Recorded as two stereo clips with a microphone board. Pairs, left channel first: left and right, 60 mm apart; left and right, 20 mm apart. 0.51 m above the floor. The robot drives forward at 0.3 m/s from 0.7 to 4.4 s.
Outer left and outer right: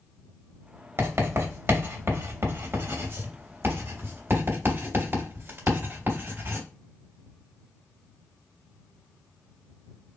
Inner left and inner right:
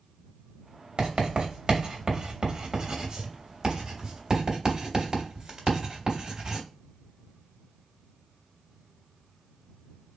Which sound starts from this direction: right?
Writing, at 1.0 s.